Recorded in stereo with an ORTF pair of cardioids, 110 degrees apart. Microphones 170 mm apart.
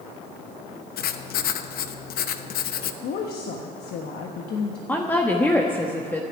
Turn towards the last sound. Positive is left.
turn(degrees=10)